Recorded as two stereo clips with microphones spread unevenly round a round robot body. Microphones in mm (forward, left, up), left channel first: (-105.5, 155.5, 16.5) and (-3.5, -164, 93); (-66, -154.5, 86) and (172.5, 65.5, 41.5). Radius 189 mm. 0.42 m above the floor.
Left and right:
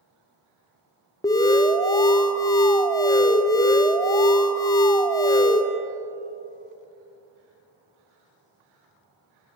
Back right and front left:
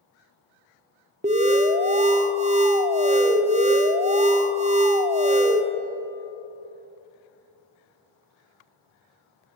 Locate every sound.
1.2 s an alarm: 65° left, 0.6 m